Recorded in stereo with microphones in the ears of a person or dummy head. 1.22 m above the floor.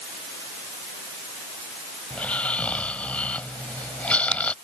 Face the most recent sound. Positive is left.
turn(degrees=5)  # may be behind; listen again after turning